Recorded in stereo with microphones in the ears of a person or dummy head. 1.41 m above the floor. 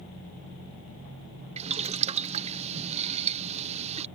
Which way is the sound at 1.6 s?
30° right (ahead or behind).